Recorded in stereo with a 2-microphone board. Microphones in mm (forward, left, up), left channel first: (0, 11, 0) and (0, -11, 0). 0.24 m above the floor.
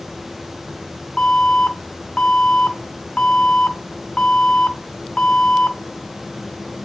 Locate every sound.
1.2 s an alarm: 50° left (ahead or behind), 3 m